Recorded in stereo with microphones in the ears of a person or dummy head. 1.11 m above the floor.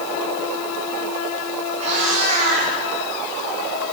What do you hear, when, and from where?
1.8 s a cat meowing: 35° right (ahead or behind), 6.5 m